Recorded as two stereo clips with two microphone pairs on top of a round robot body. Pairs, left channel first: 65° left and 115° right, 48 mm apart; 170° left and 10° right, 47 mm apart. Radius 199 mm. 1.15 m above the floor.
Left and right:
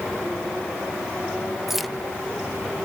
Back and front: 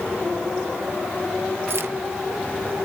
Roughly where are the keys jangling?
Ahead right.